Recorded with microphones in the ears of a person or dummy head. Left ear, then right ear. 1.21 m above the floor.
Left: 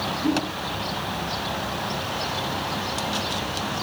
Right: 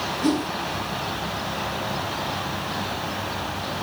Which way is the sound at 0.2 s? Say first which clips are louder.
Right 2 dB; 65° right (ahead or behind).